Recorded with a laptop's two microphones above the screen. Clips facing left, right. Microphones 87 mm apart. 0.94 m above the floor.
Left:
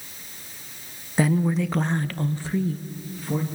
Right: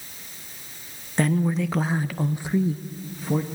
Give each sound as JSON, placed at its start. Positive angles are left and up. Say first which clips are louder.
{"t": 1.2, "sound": "a woman speaking", "louder": "left 1 dB", "side_deg": 5, "distance_m": 1.1}